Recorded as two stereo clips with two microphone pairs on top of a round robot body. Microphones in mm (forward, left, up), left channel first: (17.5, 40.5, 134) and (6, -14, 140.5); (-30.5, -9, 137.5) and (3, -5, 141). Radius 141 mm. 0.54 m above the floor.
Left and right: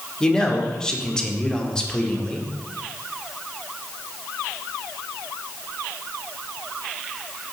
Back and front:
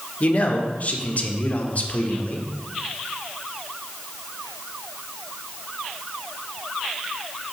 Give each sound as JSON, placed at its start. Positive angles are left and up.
{"t": 0.2, "sound": "a man speaking", "azimuth_deg": 150, "distance_m": 1.8}